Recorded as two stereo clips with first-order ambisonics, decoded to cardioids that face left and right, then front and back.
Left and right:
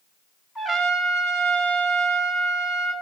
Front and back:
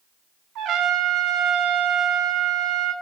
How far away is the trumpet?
About 1.8 m.